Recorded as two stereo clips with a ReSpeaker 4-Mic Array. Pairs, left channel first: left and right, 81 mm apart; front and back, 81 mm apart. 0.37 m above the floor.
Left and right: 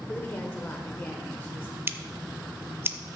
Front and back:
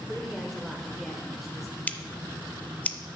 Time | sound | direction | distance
0.1 | a woman speaking | 90° left | 1.0 m
1.9 | scissors | 55° right | 0.6 m